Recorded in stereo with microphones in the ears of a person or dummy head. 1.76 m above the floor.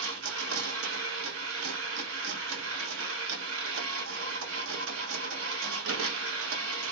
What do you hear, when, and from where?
0.0 s a machine running: 75° right (ahead or behind), 0.9 m